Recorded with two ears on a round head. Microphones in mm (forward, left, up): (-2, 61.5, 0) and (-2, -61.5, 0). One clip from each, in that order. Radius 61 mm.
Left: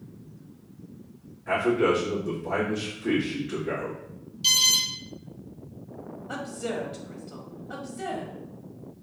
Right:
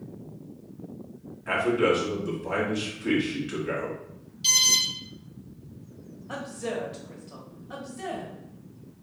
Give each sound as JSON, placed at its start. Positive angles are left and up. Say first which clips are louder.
{"t": 1.5, "sound": "a man speaking", "louder": "even", "side_deg": -60, "distance_m": 2.0}
{"t": 4.4, "sound": "an alarm", "louder": "even", "side_deg": 5, "distance_m": 1.3}
{"t": 6.3, "sound": "a woman speaking", "louder": "even", "side_deg": 5, "distance_m": 1.2}